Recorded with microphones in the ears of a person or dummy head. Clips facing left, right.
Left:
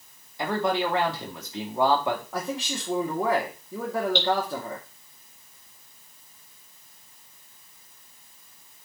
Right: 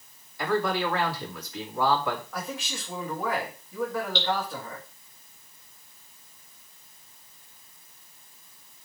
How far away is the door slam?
I don't hear a door slam.